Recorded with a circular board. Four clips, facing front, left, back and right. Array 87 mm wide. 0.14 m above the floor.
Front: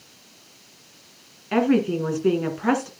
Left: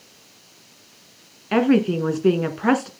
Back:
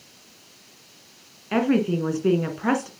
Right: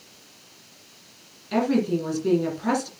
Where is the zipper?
No zipper in this recording.